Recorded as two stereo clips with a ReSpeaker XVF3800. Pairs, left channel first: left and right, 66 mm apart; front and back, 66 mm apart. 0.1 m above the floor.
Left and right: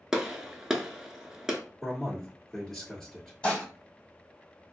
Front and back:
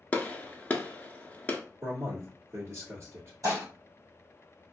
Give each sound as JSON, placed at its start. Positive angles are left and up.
{"t": 0.1, "sound": "a gunshot", "azimuth_deg": -20, "distance_m": 0.5}
{"t": 1.8, "sound": "a man speaking", "azimuth_deg": 170, "distance_m": 1.5}
{"t": 3.4, "sound": "dishes clattering", "azimuth_deg": 160, "distance_m": 1.8}